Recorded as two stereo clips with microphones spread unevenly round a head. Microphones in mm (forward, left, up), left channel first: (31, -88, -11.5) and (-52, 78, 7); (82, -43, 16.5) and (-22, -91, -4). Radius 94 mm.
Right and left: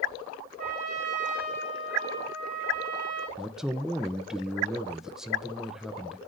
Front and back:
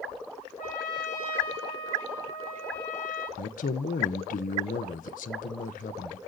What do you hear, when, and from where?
0.6 s a trumpet: 75° left, 6.5 m
3.4 s a man speaking: 30° left, 0.7 m